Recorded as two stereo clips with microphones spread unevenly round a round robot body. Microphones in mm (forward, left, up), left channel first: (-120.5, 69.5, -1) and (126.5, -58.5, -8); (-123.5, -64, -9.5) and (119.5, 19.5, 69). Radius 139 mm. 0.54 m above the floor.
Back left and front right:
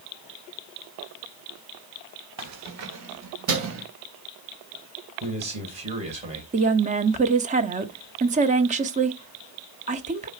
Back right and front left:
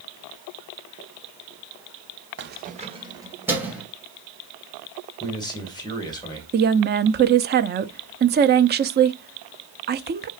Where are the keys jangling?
30° right, 1.2 m; by 3.9 s 70° right, 2.5 m.